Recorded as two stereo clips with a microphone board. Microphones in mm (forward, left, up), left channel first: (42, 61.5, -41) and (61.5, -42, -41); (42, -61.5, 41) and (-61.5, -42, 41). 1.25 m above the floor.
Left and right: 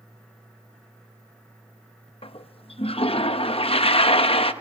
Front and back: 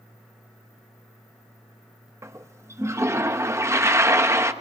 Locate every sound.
2.2 s a toilet flushing: 110° left, 0.8 m